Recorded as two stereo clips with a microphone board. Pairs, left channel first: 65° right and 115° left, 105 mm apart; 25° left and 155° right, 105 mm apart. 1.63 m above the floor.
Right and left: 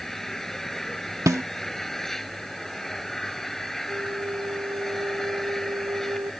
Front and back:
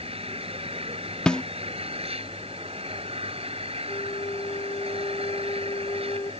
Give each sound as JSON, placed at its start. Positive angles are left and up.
{"t": 0.0, "sound": "an engine running", "azimuth_deg": -155}
{"t": 1.3, "sound": "a snare drum", "azimuth_deg": 95}
{"t": 3.9, "sound": "a flute", "azimuth_deg": 60}